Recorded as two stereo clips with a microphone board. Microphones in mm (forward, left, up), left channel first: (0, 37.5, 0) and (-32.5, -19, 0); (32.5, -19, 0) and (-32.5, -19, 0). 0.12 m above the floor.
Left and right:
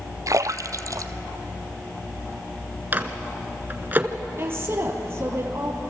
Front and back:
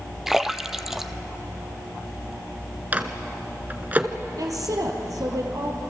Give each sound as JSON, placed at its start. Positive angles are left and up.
{"t": 0.3, "sound": "a splash", "azimuth_deg": -95, "distance_m": 0.9}
{"t": 2.9, "sound": "a microwave", "azimuth_deg": -145, "distance_m": 1.5}
{"t": 4.4, "sound": "a woman speaking", "azimuth_deg": -170, "distance_m": 4.0}